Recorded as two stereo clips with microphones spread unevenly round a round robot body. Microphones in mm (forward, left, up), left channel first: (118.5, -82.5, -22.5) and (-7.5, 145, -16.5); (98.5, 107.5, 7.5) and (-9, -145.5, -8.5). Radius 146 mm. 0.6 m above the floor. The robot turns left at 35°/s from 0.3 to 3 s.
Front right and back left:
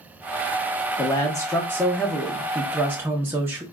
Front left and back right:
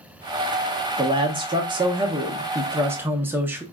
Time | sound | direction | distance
1.0 | a man speaking | 100° right | 0.5 m